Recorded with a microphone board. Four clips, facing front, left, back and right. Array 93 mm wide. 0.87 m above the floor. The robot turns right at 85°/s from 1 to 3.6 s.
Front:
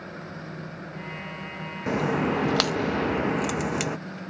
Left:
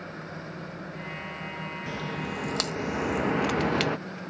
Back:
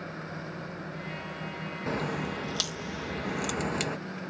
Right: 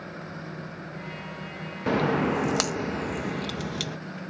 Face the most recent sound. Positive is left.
turn(degrees=70)